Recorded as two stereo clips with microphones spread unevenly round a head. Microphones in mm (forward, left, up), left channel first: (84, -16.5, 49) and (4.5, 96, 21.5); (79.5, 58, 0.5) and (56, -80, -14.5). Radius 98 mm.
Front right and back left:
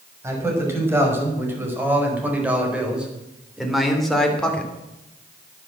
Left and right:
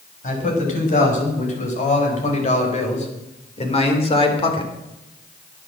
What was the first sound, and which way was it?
A man speaking, 55° left.